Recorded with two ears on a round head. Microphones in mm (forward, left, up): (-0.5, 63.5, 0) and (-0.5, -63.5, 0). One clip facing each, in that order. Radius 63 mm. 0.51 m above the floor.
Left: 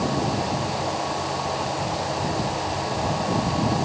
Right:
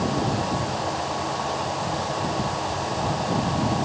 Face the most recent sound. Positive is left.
No sound to turn to.